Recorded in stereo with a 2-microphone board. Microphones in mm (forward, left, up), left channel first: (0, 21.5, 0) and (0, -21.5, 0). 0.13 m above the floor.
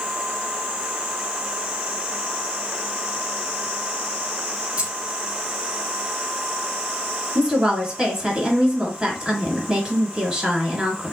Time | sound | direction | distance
4.8 | keys jangling | 30° right (ahead or behind) | 1.6 m
7.3 | a woman speaking | 15° right (ahead or behind) | 1.4 m